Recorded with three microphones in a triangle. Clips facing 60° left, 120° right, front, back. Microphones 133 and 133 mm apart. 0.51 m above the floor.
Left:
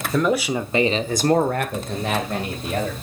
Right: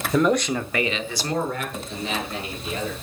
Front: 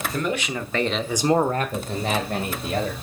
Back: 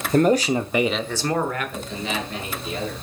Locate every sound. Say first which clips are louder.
0.1 s a man speaking: even, back 11 dB; 155° left, 1.2 m; by 2.9 s 25° left, 2.5 m